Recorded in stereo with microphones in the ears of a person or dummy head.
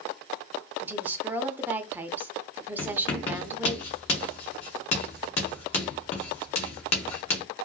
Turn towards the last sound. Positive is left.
turn(degrees=35)  # may be behind; listen again after turning